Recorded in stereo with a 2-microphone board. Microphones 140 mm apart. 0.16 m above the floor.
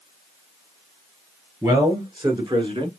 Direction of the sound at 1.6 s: 25° right (ahead or behind).